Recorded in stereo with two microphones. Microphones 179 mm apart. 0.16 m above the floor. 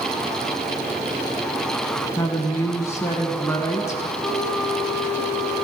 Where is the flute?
20° left (ahead or behind), 3 m.